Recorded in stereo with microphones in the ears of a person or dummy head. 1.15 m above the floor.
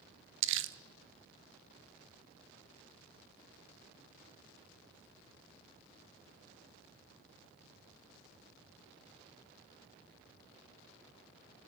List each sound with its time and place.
0.4 s crumpling: 65° right (ahead or behind), 0.6 m